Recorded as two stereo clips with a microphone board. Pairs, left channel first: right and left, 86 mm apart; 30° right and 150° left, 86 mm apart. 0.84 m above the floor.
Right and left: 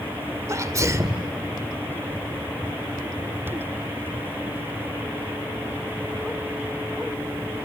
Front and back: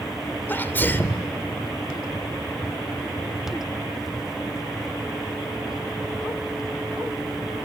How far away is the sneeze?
About 2 m.